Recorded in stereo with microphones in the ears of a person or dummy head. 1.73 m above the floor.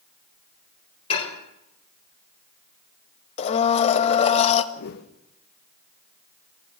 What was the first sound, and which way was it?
Dishes clattering, 40° left (ahead or behind).